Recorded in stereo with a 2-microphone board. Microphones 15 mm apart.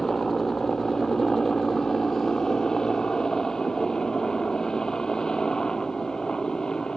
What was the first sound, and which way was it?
A helicopter, 45° left (ahead or behind).